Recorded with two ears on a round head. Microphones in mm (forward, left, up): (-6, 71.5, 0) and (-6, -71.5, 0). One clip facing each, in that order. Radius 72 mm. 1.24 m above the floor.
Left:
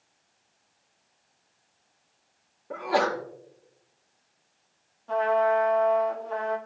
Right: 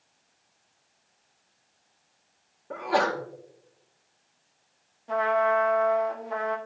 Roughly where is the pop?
No pop in this recording.